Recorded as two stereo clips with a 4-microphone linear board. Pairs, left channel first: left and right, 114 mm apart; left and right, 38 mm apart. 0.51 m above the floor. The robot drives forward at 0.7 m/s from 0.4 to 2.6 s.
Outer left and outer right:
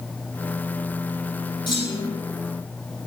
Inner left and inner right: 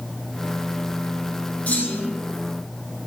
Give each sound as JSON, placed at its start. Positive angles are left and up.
{"t": 1.7, "sound": "a clunk", "side_deg": 45, "distance_m": 4.5}